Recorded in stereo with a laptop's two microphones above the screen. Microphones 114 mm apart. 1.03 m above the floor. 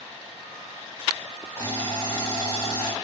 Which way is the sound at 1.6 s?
25° left (ahead or behind).